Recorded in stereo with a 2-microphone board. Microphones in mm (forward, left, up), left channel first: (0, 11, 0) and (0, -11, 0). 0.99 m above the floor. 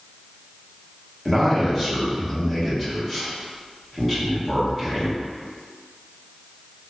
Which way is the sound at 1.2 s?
10° left (ahead or behind).